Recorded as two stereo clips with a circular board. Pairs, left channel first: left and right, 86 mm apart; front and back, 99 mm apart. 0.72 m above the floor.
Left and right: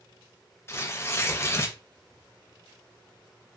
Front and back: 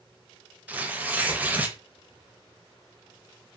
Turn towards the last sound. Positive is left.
turn(degrees=115)